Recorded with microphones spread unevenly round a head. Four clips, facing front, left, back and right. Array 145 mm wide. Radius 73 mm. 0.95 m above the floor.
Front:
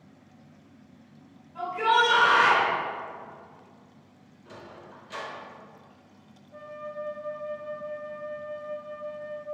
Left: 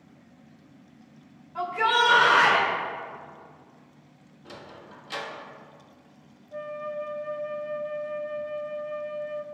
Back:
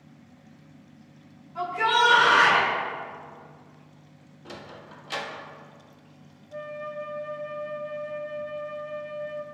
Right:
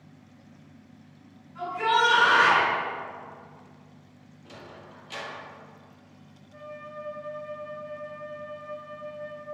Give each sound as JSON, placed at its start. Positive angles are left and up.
{"t": 1.6, "sound": "a shout", "azimuth_deg": 90, "distance_m": 4.0}
{"t": 4.5, "sound": "a sliding door", "azimuth_deg": 160, "distance_m": 1.5}
{"t": 6.5, "sound": "a flute", "azimuth_deg": 140, "distance_m": 1.2}